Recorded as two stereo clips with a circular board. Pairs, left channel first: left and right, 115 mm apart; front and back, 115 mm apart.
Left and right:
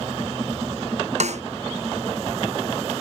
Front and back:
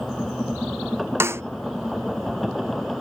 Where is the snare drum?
110° right.